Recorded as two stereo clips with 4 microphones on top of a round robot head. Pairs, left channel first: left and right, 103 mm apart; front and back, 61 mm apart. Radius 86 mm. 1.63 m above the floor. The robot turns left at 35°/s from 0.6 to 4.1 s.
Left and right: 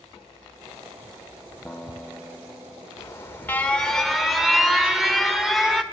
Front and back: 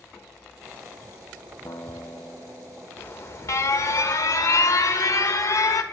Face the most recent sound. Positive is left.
turn(degrees=-5)